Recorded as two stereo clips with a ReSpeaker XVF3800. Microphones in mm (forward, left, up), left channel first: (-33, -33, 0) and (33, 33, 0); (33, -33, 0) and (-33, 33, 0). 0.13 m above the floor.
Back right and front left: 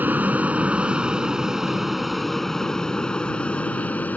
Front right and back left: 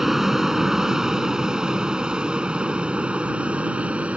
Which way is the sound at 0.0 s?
60° left.